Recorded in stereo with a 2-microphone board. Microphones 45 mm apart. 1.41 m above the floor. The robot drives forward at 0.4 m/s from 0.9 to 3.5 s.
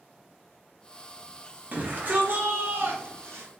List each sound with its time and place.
1.7 s a shout: 40° right (ahead or behind), 1.0 m; by 3.5 s 80° right, 0.6 m